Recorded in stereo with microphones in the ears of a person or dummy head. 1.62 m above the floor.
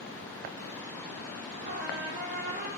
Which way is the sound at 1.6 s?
35° right (ahead or behind).